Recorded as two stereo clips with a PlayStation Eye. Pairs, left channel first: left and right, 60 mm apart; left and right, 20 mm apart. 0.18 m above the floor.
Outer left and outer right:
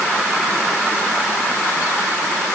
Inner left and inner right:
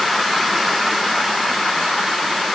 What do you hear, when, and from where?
Only background noise.